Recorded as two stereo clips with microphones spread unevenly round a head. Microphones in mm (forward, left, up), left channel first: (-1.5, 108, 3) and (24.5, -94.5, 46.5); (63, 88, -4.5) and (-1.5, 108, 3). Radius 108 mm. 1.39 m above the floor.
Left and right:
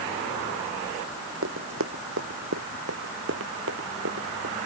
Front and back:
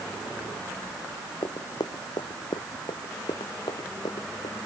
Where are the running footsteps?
70° right; by 4.5 s 55° right.